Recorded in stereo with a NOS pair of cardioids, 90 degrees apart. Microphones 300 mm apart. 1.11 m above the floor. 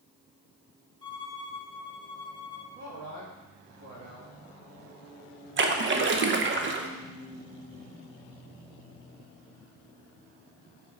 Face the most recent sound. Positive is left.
turn(degrees=-40)